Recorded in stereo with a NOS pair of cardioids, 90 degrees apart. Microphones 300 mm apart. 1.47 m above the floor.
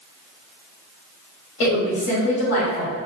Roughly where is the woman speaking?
Ahead left.